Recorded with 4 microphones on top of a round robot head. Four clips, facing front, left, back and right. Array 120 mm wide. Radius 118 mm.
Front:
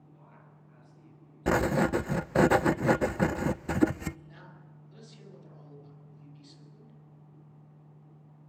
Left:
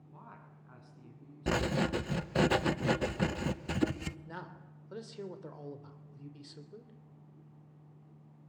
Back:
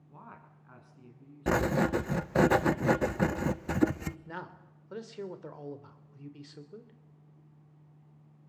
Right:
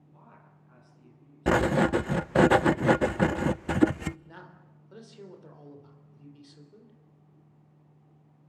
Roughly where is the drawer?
No drawer in this recording.